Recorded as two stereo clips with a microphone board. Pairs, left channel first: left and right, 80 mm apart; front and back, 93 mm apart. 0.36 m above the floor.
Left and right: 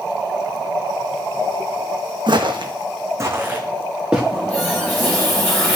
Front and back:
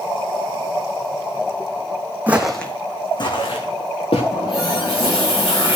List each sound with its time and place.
2.3 s footsteps: 105° right, 1.2 m; by 4.2 s 10° right, 2.5 m
4.3 s a running tap: 25° left, 5.5 m